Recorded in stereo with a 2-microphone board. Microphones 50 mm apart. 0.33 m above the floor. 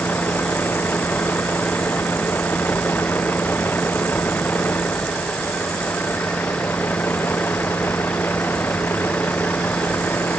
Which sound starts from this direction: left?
A vehicle, at 0.0 s.